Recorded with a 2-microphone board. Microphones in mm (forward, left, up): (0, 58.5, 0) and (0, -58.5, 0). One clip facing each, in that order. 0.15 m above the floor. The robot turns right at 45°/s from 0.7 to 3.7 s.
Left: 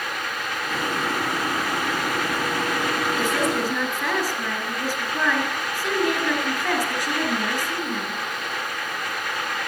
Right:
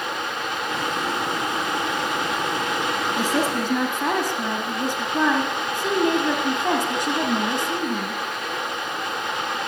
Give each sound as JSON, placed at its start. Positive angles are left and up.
{"t": 3.2, "sound": "a woman speaking", "side_deg": -45, "distance_m": 2.0}